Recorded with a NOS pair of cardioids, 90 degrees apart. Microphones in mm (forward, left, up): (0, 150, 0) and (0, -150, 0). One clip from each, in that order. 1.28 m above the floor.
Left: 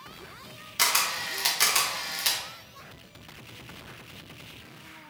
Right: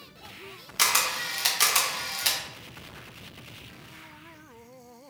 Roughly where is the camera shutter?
Ahead.